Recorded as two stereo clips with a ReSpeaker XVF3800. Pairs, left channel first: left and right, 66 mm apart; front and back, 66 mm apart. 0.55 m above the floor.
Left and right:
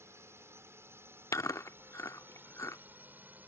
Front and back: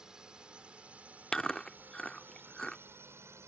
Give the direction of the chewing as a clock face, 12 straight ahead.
9 o'clock.